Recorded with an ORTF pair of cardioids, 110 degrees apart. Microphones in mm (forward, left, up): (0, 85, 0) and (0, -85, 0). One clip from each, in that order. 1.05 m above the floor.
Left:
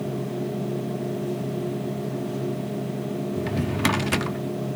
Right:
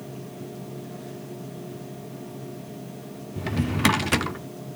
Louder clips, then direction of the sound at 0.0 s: Left 9 dB; 45° left.